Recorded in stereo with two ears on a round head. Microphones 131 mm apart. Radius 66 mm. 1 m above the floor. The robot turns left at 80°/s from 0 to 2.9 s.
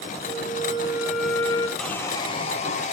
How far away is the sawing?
About 0.7 m.